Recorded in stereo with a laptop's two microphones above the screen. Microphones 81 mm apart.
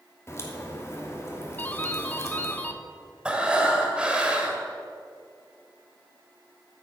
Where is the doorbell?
20° left (ahead or behind), 1.0 m.